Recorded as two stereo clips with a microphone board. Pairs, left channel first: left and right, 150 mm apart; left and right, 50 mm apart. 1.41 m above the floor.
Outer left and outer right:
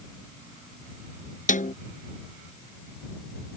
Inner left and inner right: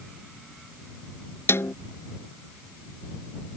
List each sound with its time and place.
1.5 s a snare drum: 60° left (ahead or behind)